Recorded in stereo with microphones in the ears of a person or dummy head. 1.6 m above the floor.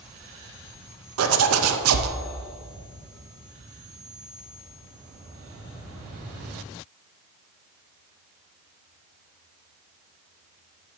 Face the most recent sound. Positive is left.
turn(degrees=-85)